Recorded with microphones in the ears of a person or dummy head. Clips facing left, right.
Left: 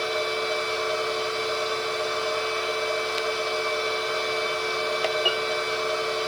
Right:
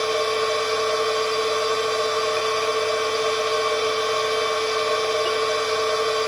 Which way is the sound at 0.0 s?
65° right (ahead or behind).